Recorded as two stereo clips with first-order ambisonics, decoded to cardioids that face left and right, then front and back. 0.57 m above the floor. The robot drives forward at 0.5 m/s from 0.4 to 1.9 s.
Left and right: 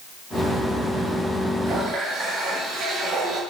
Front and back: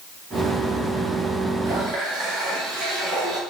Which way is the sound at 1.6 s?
135° right.